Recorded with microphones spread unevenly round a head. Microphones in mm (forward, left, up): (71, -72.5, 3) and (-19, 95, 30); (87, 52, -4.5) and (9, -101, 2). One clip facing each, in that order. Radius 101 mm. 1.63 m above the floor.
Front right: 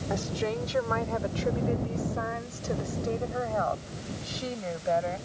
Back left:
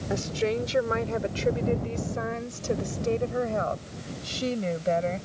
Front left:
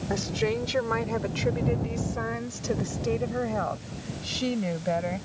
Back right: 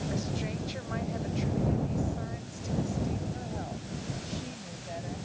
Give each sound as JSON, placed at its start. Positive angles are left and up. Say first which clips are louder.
{"t": 0.1, "sound": "a woman speaking", "louder": "back left 4 dB, front left 7 dB", "azimuth_deg": 60}